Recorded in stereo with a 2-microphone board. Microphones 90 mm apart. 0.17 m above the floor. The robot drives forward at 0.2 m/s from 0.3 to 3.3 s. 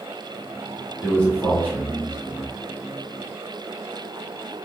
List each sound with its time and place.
1.0 s a man speaking: 20° left (ahead or behind), 1.6 m